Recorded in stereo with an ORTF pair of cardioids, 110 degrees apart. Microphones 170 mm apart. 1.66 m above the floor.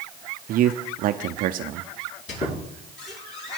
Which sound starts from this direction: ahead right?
A man speaking, at 0.5 s.